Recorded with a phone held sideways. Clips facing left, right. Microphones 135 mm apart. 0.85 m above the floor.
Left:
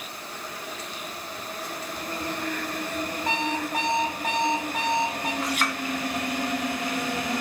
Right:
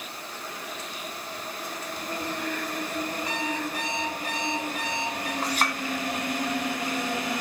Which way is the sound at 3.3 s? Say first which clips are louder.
Left 3 dB; 55° left (ahead or behind).